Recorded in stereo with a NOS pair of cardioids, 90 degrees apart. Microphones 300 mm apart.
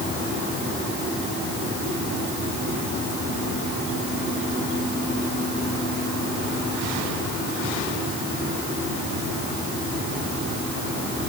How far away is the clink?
No clink in this recording.